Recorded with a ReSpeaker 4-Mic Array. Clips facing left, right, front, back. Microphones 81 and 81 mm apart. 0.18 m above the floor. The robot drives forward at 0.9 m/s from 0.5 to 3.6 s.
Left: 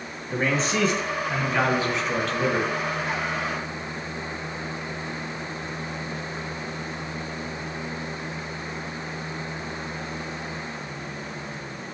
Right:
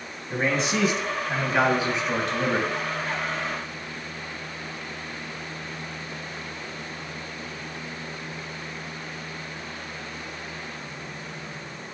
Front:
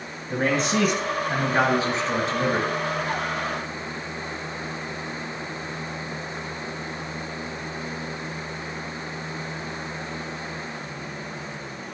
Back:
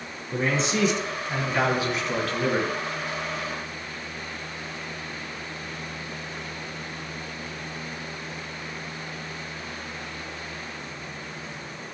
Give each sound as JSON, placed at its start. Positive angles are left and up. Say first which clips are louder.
{"t": 0.3, "sound": "a man speaking", "louder": "even, front 3 dB", "azimuth_deg": -10, "distance_m": 2.5}